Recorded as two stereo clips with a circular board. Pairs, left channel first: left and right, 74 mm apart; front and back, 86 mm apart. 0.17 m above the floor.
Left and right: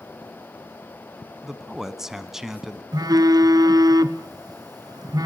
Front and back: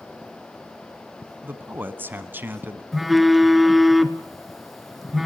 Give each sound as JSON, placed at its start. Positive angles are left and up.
{"t": 1.4, "sound": "a man speaking", "azimuth_deg": -165, "distance_m": 1.2}
{"t": 2.9, "sound": "a phone buzzing", "azimuth_deg": -90, "distance_m": 0.9}